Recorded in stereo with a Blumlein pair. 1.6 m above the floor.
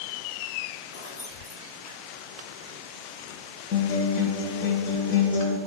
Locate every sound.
0.9 s keys jangling: 50° left, 2.5 m; by 2.0 s 40° left, 4 m
3.7 s a guitar: 45° left, 1.6 m